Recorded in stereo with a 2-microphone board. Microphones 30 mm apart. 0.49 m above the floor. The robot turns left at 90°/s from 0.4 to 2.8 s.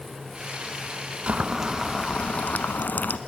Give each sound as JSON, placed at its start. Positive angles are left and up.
{"t": 1.3, "sound": "boiling", "azimuth_deg": -135, "distance_m": 0.9}